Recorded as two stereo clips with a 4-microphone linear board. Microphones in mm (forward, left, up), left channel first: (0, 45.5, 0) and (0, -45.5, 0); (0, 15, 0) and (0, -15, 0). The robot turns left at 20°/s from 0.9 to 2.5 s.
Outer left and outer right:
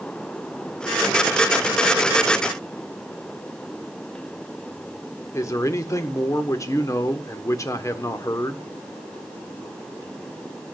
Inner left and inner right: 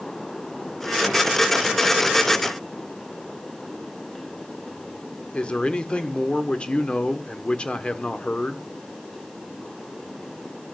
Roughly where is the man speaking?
Left.